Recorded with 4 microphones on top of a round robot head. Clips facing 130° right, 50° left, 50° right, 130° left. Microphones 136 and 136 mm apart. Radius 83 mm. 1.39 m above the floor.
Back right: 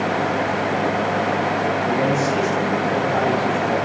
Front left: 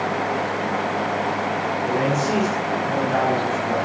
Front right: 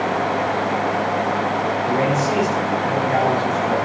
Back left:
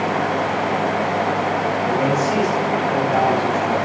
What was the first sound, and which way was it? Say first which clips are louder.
A man speaking: even, even; 15° left.